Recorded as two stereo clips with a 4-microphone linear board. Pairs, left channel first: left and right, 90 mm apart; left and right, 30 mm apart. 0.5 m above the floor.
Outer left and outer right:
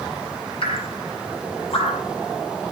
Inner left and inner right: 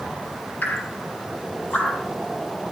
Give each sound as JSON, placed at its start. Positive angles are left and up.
{"t": 0.6, "sound": "dripping", "side_deg": 80, "distance_m": 4.0}